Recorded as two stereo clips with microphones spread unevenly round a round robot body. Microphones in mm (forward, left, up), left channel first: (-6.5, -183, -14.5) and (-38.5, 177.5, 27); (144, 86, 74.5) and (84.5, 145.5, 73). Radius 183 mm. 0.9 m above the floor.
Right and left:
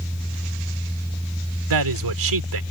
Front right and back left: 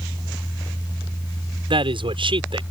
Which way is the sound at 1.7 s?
130° left.